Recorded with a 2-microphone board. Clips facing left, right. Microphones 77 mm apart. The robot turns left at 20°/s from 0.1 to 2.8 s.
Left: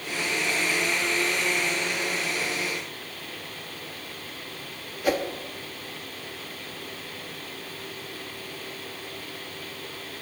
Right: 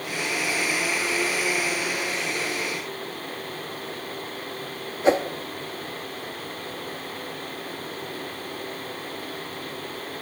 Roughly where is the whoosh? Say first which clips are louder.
Right 5 dB; right.